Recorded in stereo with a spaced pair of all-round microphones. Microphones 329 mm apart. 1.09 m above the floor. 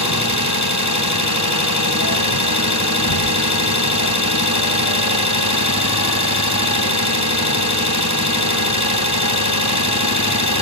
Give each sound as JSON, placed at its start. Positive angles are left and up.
{"t": 0.0, "sound": "an engine running", "side_deg": 60, "distance_m": 3.5}